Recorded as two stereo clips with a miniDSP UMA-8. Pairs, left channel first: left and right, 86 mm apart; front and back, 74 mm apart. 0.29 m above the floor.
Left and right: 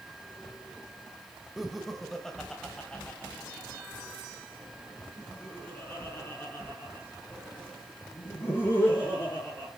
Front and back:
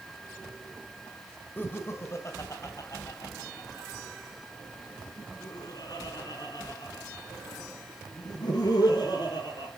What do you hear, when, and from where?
1.6 s laughter: 5° right, 1.5 m; by 9.7 s 25° left, 6 m